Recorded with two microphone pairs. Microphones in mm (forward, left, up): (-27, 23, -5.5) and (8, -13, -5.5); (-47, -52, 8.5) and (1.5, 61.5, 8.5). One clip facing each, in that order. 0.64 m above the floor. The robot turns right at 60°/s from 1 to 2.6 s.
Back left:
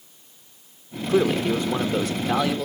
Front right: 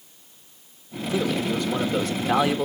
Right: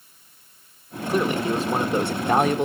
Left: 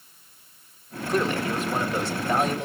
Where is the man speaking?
160° left, 1.4 m; by 2.7 s 105° right, 1.4 m.